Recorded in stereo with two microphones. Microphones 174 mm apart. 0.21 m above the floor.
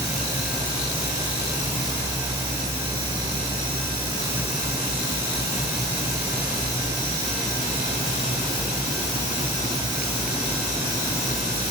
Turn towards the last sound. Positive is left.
No sound to turn to.